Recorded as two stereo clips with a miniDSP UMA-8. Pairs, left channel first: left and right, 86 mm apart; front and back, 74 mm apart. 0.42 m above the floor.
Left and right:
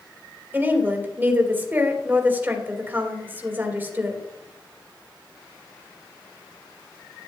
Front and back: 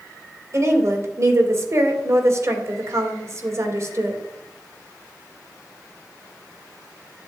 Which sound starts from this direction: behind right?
A woman speaking, at 0.5 s.